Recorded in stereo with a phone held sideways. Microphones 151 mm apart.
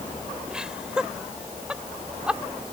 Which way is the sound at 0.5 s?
5° right (ahead or behind).